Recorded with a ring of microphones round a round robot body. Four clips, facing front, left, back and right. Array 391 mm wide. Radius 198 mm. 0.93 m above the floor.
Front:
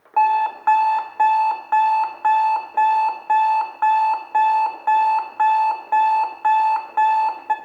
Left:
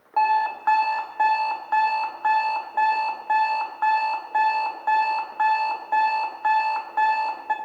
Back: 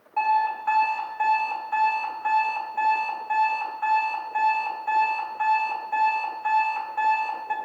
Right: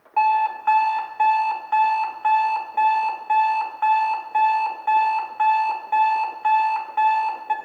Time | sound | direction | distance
0.2 | an alarm clock | 15° left | 1.3 m